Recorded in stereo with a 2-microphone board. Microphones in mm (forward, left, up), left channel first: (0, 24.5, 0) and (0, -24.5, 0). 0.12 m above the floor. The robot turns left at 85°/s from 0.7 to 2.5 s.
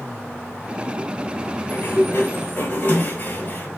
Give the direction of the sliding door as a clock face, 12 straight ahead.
8 o'clock.